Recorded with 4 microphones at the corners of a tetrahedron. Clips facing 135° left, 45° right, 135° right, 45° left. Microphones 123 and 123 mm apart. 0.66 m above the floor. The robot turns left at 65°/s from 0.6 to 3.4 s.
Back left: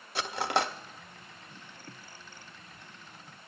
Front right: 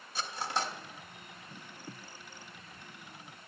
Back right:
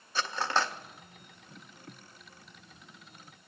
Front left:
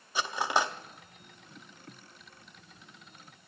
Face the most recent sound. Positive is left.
turn(degrees=-60)